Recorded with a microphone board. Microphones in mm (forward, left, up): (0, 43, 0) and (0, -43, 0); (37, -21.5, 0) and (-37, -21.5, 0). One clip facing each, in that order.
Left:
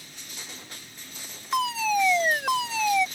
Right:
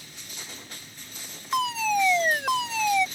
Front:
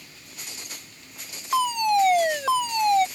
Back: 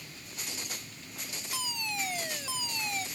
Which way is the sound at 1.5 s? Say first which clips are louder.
Even, front 18 dB; straight ahead.